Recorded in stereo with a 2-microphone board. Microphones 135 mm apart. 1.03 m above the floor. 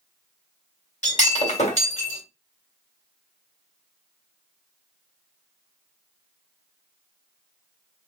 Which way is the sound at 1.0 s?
55° left (ahead or behind).